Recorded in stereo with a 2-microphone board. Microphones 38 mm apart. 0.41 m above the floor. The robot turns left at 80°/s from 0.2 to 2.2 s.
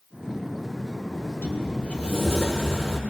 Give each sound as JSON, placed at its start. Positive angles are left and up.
{"t": 1.1, "sound": "a sliding door", "azimuth_deg": 90, "distance_m": 1.8}